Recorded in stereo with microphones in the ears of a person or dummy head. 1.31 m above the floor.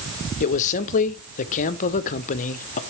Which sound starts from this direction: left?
A man speaking, at 0.4 s.